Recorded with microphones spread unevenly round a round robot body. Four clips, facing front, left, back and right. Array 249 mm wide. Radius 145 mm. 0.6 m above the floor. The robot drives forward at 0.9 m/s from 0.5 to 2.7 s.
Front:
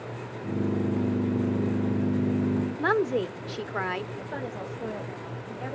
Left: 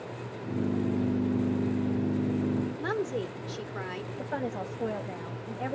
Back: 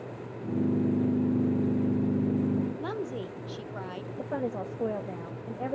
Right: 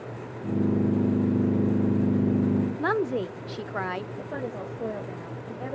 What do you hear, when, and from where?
2.8 s a woman speaking: 40° right, 1.2 m
4.2 s a woman speaking: 165° right, 3 m